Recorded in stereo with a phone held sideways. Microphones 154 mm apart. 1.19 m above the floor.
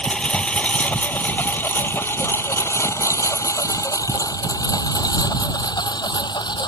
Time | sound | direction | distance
0.0 | a lawn mower | 5° left (ahead or behind) | ?